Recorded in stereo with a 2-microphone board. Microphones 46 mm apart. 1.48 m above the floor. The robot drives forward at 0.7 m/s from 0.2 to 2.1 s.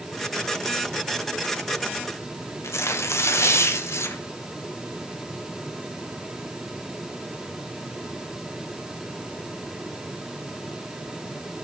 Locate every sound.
2.6 s tearing paper: 80° left, 1.1 m